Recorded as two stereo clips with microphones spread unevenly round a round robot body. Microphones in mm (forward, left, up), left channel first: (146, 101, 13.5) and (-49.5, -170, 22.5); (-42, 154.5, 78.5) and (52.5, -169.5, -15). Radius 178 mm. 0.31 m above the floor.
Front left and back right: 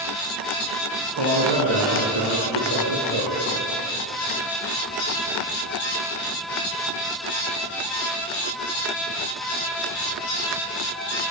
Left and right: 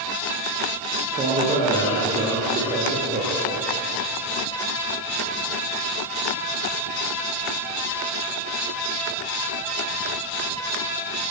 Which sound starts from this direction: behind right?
A man speaking, at 1.1 s.